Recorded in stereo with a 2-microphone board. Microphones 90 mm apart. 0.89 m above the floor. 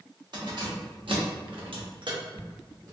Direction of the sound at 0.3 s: 55° right (ahead or behind).